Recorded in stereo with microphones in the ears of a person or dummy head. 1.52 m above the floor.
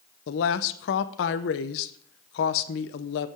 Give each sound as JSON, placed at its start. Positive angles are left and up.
{"t": 0.3, "sound": "a woman speaking", "side_deg": 65, "distance_m": 0.8}